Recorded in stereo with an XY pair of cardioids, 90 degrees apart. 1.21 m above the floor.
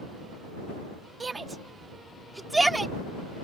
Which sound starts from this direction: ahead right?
A shout, at 1.2 s.